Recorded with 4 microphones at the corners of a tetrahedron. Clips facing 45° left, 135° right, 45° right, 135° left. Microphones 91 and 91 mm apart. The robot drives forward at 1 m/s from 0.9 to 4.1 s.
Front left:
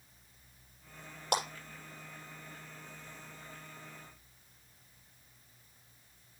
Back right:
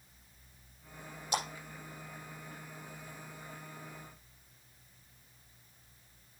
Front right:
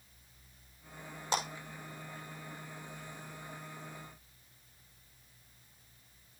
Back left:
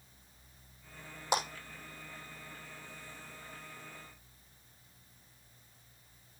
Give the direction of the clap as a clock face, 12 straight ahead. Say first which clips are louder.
Front left 2 dB, back left 2 dB; 10 o'clock.